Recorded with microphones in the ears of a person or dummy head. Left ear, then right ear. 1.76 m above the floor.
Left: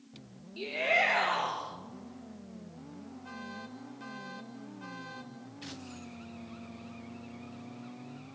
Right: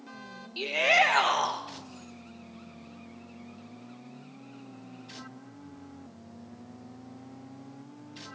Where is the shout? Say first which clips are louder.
Right 5 dB; 65° right (ahead or behind), 2.0 m.